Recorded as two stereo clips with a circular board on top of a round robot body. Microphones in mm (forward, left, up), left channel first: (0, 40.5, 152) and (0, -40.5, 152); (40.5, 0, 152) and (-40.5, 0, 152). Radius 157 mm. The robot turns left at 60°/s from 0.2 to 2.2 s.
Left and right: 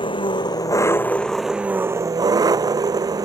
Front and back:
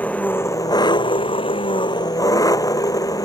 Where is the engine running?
75° left; by 3.2 s 45° right.